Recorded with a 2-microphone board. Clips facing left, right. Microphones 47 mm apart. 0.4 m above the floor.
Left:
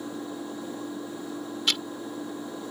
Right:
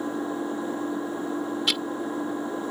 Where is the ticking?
5° right (ahead or behind).